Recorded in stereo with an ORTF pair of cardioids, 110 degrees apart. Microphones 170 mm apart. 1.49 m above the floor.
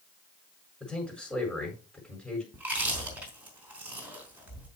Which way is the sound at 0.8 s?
5° left.